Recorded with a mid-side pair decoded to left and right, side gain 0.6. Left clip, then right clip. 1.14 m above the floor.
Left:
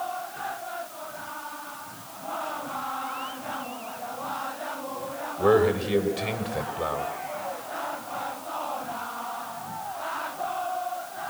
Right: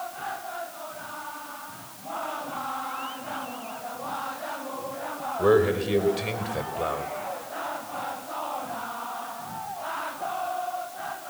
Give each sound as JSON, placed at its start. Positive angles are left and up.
{"t": 5.4, "sound": "a man speaking", "azimuth_deg": -5, "distance_m": 5.5}